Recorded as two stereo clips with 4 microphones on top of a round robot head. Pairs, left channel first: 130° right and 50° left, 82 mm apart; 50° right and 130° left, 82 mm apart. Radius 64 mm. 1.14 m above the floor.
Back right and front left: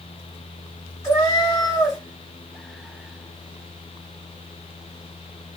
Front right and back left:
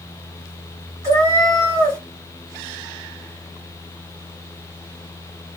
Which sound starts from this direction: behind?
A cat meowing, at 1.0 s.